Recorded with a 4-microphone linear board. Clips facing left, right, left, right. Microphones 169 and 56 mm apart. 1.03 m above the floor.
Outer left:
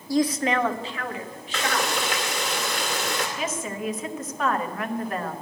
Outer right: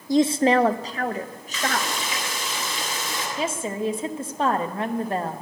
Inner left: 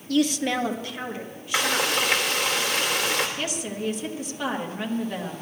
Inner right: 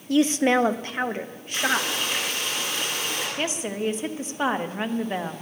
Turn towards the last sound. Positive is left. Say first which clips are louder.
# outer right 3 dB, inner right 2 dB
turn(degrees=-30)  # may be behind; listen again after turning